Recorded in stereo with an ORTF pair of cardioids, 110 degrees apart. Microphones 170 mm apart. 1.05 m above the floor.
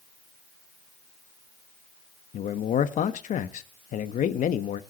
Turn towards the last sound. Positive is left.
turn(degrees=50)